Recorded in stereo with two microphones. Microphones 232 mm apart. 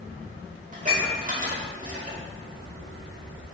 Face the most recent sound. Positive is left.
turn(degrees=-35)  # may be behind; listen again after turning